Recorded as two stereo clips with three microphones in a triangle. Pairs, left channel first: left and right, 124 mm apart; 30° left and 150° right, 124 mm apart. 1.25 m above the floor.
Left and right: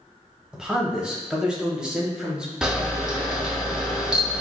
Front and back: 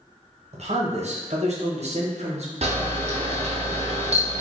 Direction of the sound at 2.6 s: 175° right.